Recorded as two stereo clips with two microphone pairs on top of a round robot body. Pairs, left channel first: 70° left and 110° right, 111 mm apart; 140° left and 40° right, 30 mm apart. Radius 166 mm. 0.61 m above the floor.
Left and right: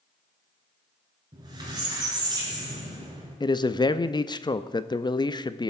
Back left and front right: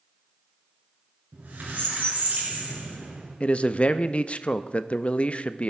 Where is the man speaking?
105° left, 0.7 m.